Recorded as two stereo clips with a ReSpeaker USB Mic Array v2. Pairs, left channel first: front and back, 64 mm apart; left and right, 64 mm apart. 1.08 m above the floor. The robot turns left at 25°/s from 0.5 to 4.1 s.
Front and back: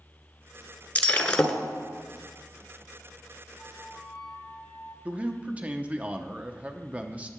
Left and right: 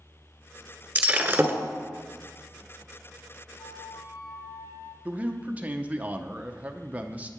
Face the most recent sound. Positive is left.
turn(degrees=-135)